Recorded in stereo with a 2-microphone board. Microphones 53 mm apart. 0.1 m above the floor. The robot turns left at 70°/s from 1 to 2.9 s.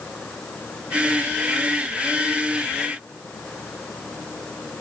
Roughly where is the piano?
No piano in this recording.